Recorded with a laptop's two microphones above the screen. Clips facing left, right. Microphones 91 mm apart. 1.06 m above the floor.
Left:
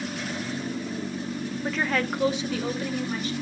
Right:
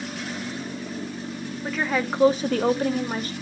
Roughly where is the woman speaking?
Centre.